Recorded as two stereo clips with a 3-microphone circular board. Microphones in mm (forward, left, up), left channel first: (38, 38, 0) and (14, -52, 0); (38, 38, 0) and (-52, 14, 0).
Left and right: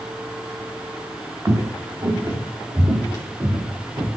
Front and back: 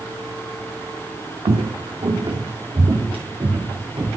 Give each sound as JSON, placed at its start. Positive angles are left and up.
{"t": 1.4, "sound": "footsteps", "azimuth_deg": -165, "distance_m": 0.9}